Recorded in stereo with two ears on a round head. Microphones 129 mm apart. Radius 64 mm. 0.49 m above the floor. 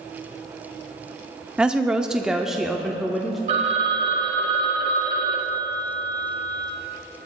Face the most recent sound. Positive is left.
turn(degrees=-50)  # may be behind; listen again after turning